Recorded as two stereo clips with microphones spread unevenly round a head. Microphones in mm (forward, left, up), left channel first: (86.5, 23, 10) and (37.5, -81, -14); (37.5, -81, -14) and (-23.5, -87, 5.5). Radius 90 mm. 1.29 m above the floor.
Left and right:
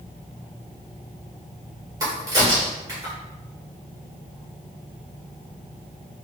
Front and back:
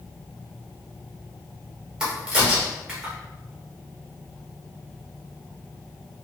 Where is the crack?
175° right, 1.1 m.